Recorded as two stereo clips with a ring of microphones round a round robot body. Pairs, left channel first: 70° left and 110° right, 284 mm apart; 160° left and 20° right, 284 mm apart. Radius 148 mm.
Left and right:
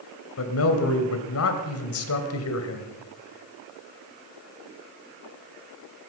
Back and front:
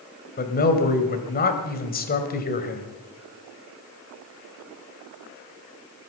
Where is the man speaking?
100° left, 2 m.